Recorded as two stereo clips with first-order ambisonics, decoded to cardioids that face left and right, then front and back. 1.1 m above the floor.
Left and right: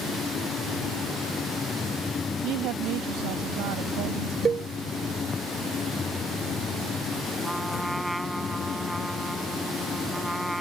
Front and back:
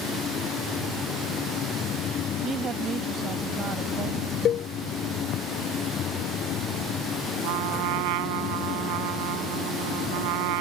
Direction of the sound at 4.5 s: 30° right.